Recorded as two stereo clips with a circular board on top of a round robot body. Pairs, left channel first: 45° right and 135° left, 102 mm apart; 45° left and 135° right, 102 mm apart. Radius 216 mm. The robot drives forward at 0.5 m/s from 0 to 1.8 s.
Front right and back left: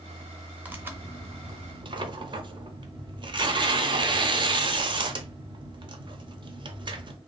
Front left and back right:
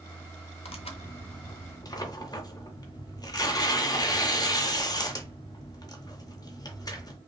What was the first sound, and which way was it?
Tearing paper, 60° left.